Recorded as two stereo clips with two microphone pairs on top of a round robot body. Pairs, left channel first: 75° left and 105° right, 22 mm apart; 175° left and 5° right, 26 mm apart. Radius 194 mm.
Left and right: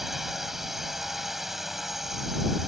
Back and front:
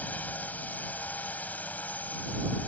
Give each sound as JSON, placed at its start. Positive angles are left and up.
{"t": 0.0, "sound": "a drone", "azimuth_deg": 175}